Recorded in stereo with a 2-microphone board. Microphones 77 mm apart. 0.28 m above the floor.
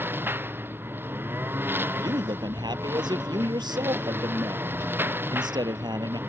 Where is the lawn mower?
25° right (ahead or behind).